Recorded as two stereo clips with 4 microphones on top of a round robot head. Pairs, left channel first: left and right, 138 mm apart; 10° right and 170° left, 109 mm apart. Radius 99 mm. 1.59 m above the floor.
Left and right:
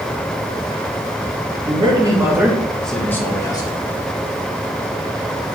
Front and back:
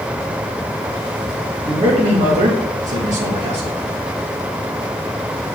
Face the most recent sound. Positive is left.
turn(degrees=150)